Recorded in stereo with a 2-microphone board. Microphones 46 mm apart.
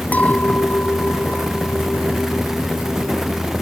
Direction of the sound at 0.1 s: 35° left (ahead or behind).